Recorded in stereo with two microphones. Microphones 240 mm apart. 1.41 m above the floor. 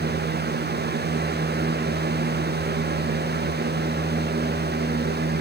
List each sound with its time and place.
Only background noise.